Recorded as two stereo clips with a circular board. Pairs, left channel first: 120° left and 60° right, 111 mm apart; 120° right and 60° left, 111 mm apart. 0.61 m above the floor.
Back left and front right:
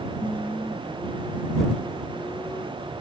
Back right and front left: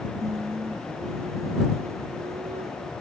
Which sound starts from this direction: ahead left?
Singing, at 0.2 s.